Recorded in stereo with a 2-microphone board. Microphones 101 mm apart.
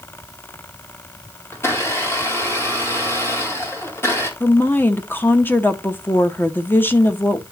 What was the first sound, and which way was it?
A blender, 25° left (ahead or behind).